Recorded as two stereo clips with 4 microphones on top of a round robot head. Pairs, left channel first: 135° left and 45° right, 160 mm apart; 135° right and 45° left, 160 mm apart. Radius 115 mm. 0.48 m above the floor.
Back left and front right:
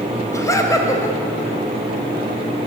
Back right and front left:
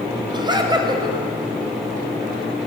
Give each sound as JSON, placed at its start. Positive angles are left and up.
{"t": 0.3, "sound": "laughter", "azimuth_deg": 80, "distance_m": 1.3}